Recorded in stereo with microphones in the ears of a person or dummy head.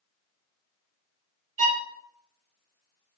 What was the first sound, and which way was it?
A violin, 35° right (ahead or behind).